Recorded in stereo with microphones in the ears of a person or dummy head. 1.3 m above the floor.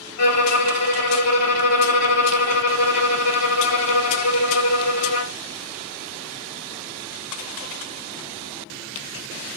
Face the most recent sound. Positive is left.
turn(degrees=45)  # may be behind; listen again after turning